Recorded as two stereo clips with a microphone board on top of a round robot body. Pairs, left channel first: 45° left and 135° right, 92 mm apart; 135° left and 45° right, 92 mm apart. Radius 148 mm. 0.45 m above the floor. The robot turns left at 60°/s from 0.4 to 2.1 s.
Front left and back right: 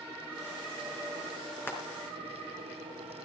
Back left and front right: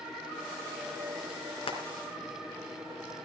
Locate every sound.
1.7 s frying: 110° left, 3.5 m; by 1.8 s 105° left, 3.5 m